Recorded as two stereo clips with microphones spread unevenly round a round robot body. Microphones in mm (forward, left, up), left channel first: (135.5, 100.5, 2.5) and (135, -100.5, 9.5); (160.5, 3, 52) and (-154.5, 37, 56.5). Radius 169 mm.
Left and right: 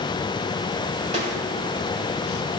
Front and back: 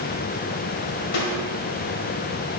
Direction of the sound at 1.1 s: 35° right.